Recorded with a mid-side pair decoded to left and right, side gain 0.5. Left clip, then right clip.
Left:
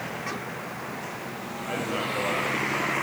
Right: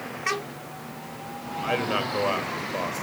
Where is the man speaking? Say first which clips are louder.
Right 4 dB; 45° right, 6.5 m.